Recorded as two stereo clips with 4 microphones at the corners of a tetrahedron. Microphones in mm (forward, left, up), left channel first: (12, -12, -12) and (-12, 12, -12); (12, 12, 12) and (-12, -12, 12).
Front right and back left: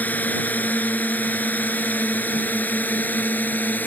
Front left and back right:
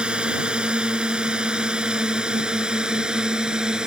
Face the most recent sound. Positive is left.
turn(degrees=-70)